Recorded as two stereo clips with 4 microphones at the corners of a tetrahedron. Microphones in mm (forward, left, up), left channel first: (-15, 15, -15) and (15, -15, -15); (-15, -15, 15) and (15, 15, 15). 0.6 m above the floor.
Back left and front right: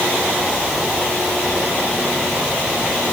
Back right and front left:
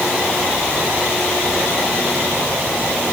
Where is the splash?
I don't hear a splash.